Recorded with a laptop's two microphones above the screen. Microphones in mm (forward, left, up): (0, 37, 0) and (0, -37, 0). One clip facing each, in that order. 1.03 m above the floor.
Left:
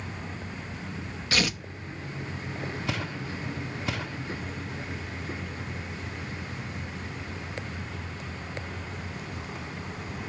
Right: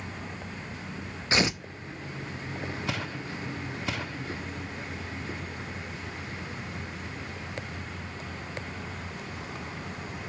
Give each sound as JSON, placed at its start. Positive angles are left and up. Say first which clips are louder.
{"t": 1.3, "sound": "tearing paper", "louder": "right 2 dB", "side_deg": -20, "distance_m": 0.7}